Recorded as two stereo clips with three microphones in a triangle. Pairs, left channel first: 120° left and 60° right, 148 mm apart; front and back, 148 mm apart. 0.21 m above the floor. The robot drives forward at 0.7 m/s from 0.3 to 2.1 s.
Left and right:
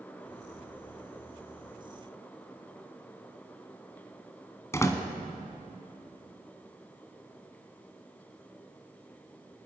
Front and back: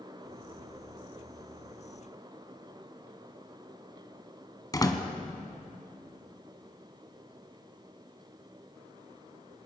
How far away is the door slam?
About 1.5 m.